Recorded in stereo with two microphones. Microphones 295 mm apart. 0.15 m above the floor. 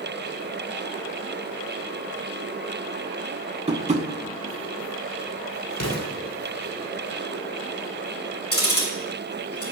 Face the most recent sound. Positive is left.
turn(degrees=35)  # may be behind; listen again after turning